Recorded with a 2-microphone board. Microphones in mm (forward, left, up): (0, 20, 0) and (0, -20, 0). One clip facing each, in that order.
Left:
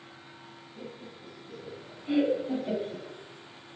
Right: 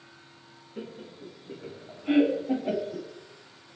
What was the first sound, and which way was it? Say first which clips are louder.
Laughter: right 4 dB; 60° right (ahead or behind).